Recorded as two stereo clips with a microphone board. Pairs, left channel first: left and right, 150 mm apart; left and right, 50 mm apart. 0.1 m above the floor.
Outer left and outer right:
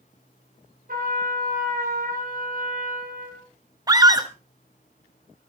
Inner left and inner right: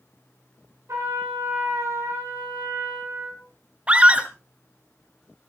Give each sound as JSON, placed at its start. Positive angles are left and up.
{"t": 0.9, "sound": "a trumpet", "side_deg": -70, "distance_m": 9.0}
{"t": 3.9, "sound": "a scream", "side_deg": -25, "distance_m": 1.2}